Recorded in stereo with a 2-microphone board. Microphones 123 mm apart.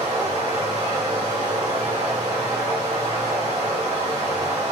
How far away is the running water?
About 1.4 m.